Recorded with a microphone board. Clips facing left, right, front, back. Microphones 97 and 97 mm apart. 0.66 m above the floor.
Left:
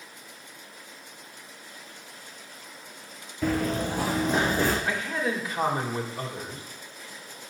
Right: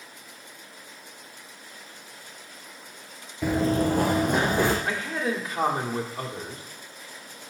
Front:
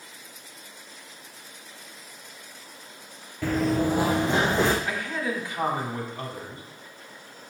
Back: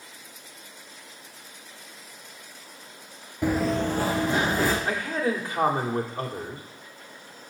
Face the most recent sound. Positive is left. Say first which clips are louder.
# even, back 3 dB
turn(degrees=-140)